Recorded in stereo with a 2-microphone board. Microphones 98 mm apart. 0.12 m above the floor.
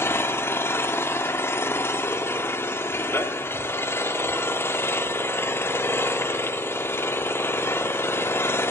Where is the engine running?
25° left (ahead or behind), 0.8 m.